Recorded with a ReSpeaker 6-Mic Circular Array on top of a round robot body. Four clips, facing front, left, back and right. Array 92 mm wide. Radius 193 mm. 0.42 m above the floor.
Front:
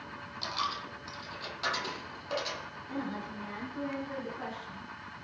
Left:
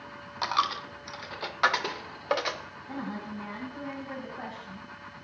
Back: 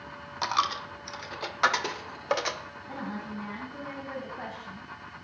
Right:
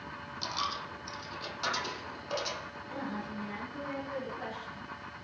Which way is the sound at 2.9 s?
140° left.